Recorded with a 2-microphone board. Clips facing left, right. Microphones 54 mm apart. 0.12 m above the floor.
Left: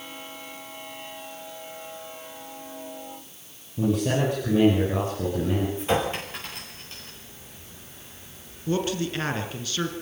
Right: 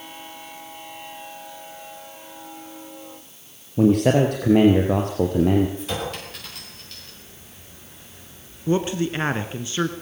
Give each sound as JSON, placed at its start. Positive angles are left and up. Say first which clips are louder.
{"t": 3.8, "sound": "a man speaking", "louder": "right 7 dB", "side_deg": -55, "distance_m": 3.0}
{"t": 5.8, "sound": "a clink", "louder": "left 4 dB", "side_deg": 25, "distance_m": 7.0}
{"t": 8.7, "sound": "a man speaking", "louder": "right 4 dB", "side_deg": -25, "distance_m": 1.5}